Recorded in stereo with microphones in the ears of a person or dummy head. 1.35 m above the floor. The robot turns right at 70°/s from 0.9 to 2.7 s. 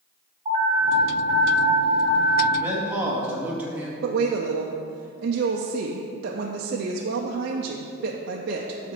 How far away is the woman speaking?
About 0.6 m.